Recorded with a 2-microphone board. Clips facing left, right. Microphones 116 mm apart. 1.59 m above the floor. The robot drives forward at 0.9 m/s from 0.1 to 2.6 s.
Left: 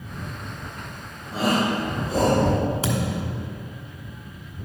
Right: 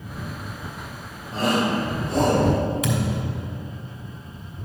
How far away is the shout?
About 1.3 m.